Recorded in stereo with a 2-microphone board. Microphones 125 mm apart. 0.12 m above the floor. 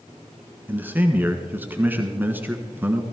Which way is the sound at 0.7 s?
15° right (ahead or behind).